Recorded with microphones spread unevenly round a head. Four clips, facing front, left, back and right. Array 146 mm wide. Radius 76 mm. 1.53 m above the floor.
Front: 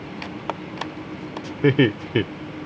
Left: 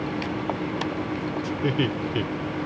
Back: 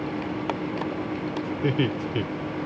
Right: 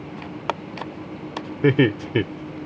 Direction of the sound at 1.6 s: 30° right.